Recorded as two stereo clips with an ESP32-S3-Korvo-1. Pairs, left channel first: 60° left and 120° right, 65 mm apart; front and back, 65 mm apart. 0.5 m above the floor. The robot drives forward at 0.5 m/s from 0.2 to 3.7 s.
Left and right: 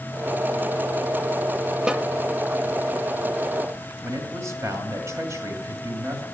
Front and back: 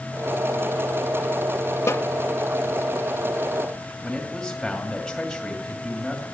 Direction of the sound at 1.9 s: 40° right.